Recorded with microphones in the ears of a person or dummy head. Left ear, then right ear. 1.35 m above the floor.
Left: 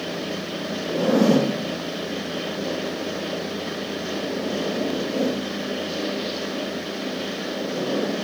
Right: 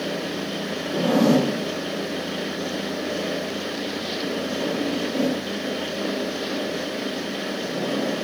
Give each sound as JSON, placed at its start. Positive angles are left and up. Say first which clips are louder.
{"t": 0.9, "sound": "a zipper", "louder": "left 1 dB", "side_deg": 5, "distance_m": 1.2}